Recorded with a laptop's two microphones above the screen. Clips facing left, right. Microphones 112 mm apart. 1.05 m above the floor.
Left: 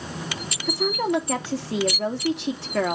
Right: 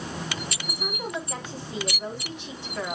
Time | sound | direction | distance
0.7 | a woman speaking | 80° left | 2.5 m